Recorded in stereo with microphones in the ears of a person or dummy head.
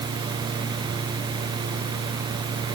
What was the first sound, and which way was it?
Only background noise.